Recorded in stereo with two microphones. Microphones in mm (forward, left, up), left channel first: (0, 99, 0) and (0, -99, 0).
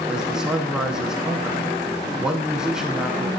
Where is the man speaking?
5° right (ahead or behind), 1.1 m.